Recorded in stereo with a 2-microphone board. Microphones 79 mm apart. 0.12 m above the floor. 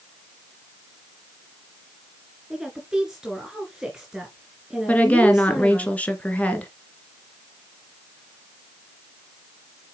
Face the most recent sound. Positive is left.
turn(degrees=20)  # may be behind; listen again after turning